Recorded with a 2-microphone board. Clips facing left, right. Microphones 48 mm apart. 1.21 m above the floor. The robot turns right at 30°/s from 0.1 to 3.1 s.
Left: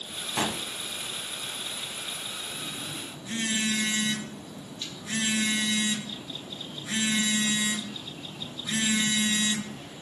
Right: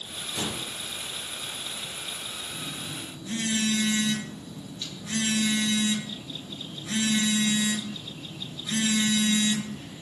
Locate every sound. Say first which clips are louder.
0.4 s a gunshot: left 4 dB; 65° left (ahead or behind), 1.2 m
2.5 s a phone buzzing: even; 5° right (ahead or behind), 1.7 m; by 9.9 s 10° left (ahead or behind), 1.7 m